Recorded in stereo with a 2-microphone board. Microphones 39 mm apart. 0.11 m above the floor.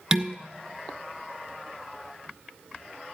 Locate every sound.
0.1 s dishes clattering: 15° right (ahead or behind), 0.9 m